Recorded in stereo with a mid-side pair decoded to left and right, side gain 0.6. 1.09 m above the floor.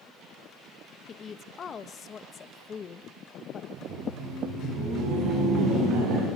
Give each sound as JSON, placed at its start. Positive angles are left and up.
{"t": 1.1, "sound": "a woman speaking", "azimuth_deg": 40, "distance_m": 1.1}
{"t": 3.7, "sound": "laughter", "azimuth_deg": -65, "distance_m": 9.0}